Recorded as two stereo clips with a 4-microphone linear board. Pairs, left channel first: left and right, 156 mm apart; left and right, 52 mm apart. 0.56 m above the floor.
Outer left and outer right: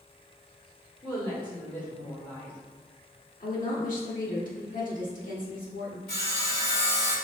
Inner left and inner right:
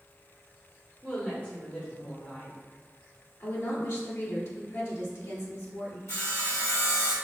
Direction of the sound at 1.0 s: 30° left (ahead or behind).